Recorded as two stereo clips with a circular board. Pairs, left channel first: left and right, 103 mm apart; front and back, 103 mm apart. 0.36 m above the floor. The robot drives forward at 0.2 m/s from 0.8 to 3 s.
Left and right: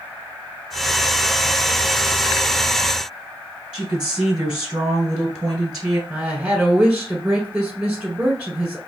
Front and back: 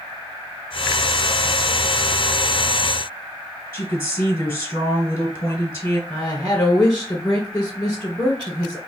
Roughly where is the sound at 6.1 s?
Ahead right.